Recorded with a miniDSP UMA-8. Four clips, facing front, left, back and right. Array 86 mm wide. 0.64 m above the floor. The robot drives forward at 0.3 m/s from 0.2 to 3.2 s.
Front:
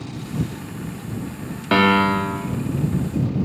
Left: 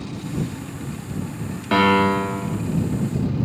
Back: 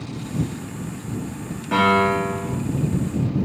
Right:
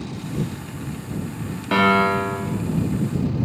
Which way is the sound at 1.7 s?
Straight ahead.